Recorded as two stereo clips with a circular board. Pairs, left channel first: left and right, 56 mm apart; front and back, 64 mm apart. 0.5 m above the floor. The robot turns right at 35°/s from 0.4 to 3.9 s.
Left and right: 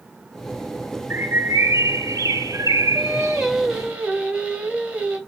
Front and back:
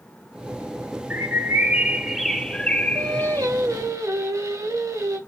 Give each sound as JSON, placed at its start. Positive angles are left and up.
{"t": 1.1, "sound": "a bird", "azimuth_deg": -130, "distance_m": 0.7}
{"t": 3.0, "sound": "singing", "azimuth_deg": 170, "distance_m": 2.5}